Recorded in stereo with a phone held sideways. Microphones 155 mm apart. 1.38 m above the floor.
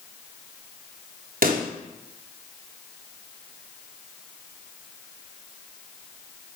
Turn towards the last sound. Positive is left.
turn(degrees=-65)  # may be behind; listen again after turning